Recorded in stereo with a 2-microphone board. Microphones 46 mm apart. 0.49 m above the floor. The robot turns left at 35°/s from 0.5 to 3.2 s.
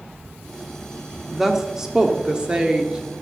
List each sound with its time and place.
1.3 s a woman speaking: 5° right (ahead or behind), 1.3 m; by 3.2 s 25° right (ahead or behind), 1.3 m